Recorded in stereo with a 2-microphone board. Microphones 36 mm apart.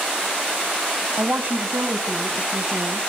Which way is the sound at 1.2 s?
55° right (ahead or behind).